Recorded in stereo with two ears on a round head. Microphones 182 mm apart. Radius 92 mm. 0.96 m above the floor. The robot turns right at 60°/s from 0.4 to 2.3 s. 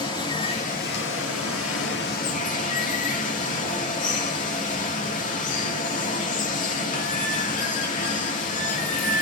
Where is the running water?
20° left, 2 m; by 9.2 s 135° left, 2 m.